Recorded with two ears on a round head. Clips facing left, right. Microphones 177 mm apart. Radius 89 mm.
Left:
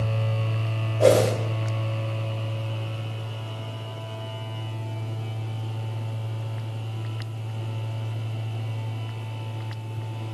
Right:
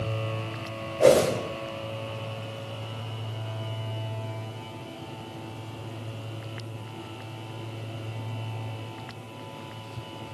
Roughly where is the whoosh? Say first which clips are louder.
Even; centre.